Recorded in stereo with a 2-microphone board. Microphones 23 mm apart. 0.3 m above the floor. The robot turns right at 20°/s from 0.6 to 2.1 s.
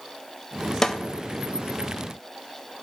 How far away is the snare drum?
About 0.5 m.